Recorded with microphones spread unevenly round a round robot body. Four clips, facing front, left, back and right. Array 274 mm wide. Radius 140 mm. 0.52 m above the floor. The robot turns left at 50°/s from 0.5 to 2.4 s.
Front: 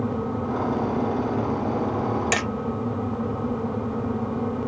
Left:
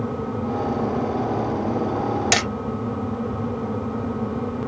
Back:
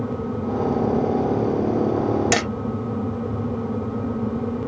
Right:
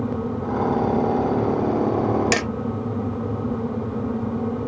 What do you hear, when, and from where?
2.3 s hammering: 160° right; by 2.5 s 165° right